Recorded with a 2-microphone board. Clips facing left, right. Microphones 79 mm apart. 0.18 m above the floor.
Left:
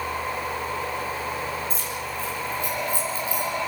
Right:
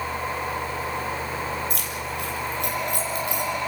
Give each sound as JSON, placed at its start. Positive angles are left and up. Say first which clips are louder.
{"t": 1.7, "sound": "keys jangling", "louder": "even", "side_deg": -70, "distance_m": 3.5}